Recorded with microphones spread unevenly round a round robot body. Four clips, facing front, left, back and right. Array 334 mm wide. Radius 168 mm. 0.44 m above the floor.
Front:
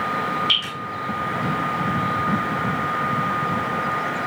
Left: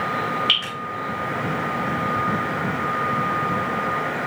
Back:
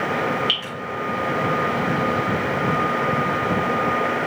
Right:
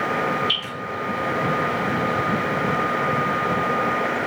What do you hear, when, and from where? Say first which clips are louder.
0.5 s dripping: left 2 dB, front 1 dB; 95° left, 1.8 m